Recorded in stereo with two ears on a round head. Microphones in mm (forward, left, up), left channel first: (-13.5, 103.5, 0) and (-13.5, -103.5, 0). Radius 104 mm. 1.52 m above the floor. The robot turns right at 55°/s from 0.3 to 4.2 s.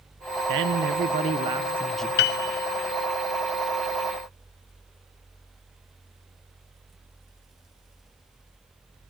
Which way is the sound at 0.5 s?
80° right.